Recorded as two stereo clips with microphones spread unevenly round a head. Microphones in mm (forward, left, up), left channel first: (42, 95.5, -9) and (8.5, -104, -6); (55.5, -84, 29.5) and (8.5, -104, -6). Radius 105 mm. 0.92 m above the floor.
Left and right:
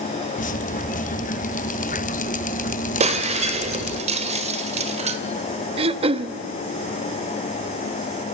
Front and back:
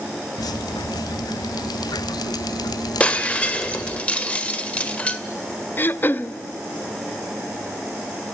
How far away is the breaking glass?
About 2.5 m.